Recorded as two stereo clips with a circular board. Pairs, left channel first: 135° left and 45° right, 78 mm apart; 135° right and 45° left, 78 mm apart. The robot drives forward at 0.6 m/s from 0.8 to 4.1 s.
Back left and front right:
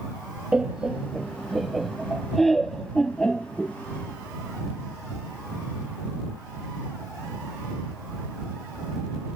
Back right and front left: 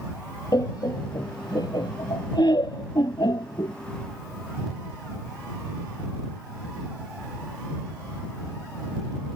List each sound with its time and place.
0.5 s laughter: 125° right; by 3.8 s 145° right